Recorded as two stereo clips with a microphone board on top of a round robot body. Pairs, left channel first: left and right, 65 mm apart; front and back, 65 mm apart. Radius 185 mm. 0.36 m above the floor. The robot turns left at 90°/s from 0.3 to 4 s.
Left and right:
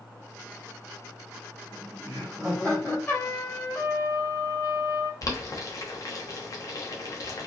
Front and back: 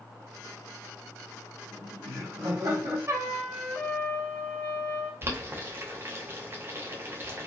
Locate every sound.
1.7 s laughter: 100° right, 3 m; by 3.0 s 145° left, 3 m
3.1 s a trumpet: 145° left, 1.4 m; by 5.1 s 60° left, 1.4 m
5.2 s boiling: 125° left, 1.2 m